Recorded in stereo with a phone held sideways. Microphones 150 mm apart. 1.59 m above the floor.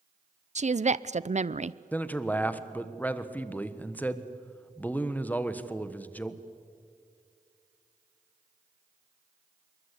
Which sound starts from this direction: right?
A woman speaking, at 0.6 s.